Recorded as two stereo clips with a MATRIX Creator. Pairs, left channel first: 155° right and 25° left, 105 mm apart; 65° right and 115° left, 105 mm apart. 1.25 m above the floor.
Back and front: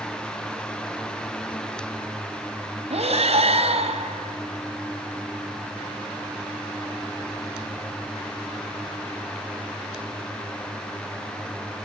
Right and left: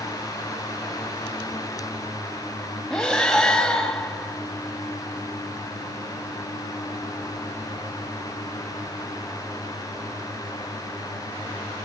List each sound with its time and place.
2.9 s breathing: 20° left, 3 m